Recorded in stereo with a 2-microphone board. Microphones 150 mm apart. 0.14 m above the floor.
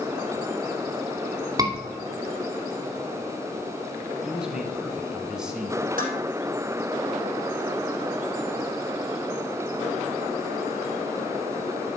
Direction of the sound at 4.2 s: 5° right (ahead or behind).